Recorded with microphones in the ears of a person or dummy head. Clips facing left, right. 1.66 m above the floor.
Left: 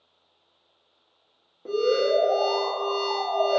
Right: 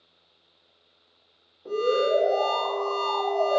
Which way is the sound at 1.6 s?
55° left (ahead or behind).